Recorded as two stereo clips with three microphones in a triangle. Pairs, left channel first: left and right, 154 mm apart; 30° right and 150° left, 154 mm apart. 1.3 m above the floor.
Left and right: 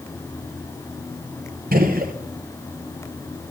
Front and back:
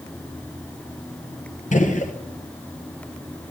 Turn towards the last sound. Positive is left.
turn(degrees=-70)